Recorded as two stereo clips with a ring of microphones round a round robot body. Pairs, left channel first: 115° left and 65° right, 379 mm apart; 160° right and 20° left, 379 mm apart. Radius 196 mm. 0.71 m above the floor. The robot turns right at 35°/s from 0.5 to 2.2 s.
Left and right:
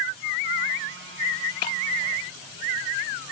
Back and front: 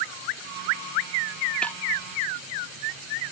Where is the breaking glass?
115° left; by 1.8 s 120° left.